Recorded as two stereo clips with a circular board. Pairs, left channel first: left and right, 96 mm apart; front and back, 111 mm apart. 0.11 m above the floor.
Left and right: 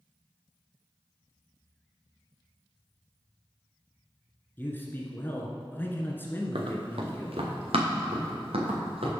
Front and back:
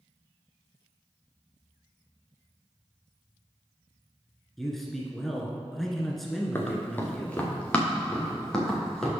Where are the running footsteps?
70° right, 2 m; by 9.1 s 85° right, 4 m.